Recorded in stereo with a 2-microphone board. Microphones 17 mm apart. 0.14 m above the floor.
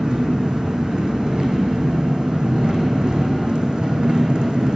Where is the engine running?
60° right (ahead or behind), 1.6 m.